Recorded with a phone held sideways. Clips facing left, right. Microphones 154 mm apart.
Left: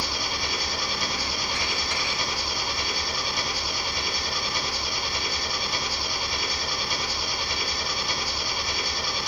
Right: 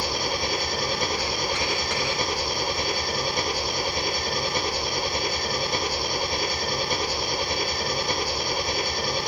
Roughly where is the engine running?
Right.